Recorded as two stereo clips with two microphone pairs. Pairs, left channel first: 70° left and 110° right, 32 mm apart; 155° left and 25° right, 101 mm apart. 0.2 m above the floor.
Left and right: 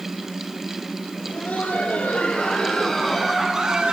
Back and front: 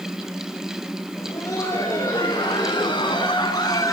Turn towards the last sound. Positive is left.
turn(degrees=-160)